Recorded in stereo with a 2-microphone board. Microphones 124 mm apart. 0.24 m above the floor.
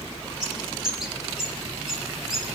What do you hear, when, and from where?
0.4 s a bird: 5° right (ahead or behind), 5.5 m